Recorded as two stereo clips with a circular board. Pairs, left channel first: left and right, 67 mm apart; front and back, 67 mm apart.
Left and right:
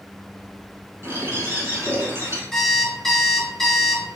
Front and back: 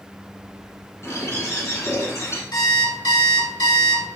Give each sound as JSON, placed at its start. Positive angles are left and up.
{"t": 1.0, "sound": "a bird", "azimuth_deg": -35, "distance_m": 2.5}
{"t": 2.5, "sound": "an alarm clock", "azimuth_deg": 5, "distance_m": 1.2}